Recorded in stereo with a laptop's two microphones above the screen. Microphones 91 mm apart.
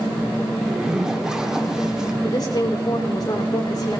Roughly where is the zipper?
Centre.